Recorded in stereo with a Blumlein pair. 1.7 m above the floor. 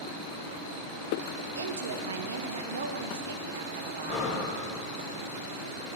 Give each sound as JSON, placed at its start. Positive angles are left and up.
{"t": 1.6, "sound": "a woman speaking", "azimuth_deg": -65, "distance_m": 0.9}
{"t": 4.1, "sound": "breathing", "azimuth_deg": 10, "distance_m": 1.9}